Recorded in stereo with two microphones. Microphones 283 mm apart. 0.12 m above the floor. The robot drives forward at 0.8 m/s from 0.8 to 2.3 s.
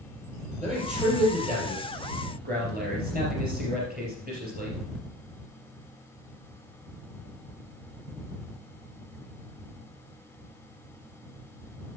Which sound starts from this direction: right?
A man speaking, at 0.6 s.